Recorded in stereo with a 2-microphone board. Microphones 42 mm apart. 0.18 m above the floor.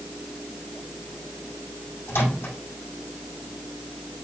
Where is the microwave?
75° left (ahead or behind), 5.5 m.